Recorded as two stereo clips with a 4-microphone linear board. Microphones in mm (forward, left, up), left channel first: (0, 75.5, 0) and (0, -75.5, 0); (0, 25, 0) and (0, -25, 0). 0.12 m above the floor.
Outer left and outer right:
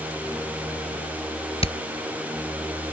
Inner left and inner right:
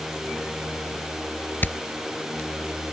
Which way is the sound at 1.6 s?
40° left (ahead or behind).